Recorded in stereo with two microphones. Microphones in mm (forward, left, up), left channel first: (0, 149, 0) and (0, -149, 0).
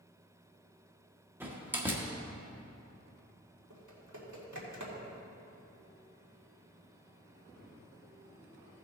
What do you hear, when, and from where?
1.4 s a door slam: 5° right (ahead or behind), 1.1 m
3.7 s typing on a keyboard: 75° right (ahead or behind), 1.8 m